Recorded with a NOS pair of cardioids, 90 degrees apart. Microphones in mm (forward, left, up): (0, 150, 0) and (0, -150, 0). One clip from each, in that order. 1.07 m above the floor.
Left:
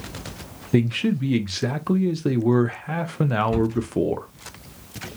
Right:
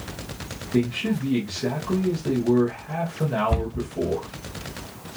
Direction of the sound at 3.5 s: 25° right.